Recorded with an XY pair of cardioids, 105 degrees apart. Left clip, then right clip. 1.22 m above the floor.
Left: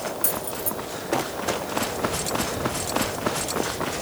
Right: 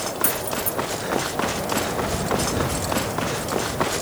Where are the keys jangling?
5° right, 1.6 m.